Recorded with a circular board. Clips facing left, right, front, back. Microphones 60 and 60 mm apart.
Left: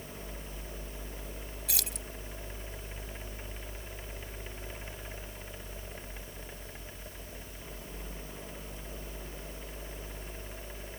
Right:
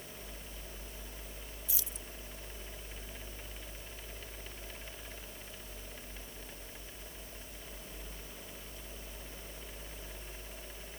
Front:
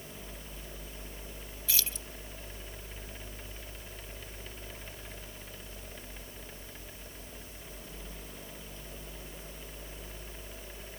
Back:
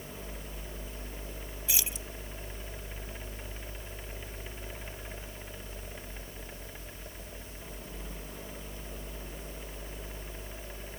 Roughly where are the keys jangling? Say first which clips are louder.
Left 10 dB, even; left.